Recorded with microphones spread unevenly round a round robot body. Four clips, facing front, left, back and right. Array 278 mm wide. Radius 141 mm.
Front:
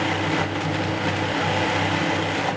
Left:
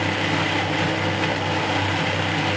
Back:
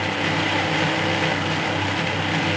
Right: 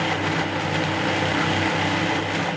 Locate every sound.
Only background noise.